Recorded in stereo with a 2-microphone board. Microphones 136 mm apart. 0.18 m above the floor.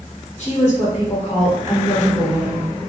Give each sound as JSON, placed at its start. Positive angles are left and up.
{"t": 0.4, "sound": "a woman speaking", "side_deg": 55, "distance_m": 2.0}